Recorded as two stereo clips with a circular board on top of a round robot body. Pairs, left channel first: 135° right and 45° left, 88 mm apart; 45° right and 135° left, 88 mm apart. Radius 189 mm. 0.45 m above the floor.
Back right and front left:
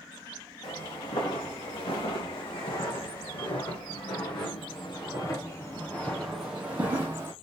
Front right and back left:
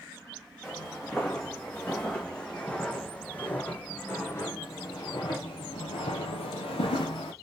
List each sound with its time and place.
0.6 s footsteps: 130° right, 3 m; by 7.3 s 15° right, 1.1 m